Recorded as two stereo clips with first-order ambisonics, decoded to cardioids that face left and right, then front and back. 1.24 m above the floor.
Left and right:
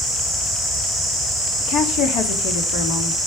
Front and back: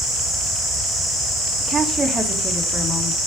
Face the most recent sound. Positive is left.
turn(degrees=85)